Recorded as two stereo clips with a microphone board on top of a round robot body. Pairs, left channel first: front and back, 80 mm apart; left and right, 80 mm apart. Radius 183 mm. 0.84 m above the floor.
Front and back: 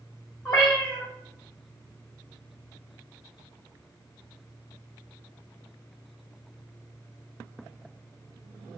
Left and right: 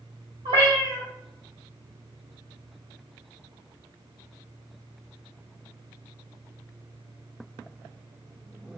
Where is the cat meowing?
90° right, 0.8 m.